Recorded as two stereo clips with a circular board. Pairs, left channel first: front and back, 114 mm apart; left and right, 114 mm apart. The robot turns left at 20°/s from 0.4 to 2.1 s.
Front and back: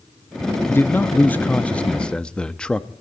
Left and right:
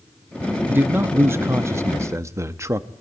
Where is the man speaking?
45° right, 0.6 m; by 2.9 s 70° right, 0.6 m.